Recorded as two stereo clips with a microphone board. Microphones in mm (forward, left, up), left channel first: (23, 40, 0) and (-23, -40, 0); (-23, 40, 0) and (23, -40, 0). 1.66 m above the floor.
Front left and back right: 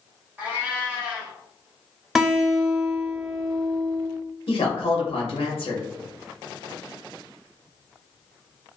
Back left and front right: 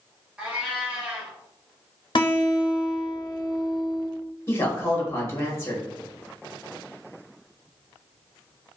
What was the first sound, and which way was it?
A cat meowing, 100° right.